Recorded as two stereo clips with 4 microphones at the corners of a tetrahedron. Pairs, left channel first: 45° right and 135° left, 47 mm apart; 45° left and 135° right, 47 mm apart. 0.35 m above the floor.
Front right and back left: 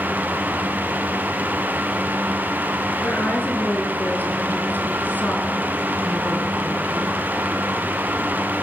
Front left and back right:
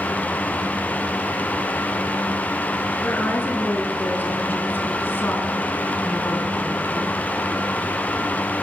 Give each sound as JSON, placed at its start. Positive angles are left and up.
{"t": 3.0, "sound": "a woman speaking", "azimuth_deg": 0, "distance_m": 5.5}